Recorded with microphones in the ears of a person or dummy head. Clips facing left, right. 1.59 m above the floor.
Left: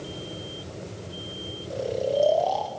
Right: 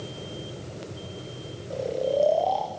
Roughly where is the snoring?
Centre.